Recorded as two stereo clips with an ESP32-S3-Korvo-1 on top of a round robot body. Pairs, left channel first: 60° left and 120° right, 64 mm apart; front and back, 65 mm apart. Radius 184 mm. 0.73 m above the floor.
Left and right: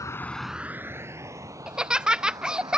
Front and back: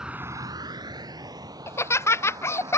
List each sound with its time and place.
0.0 s a vehicle: 100° left; by 2.8 s 150° right
1.7 s laughter: 45° right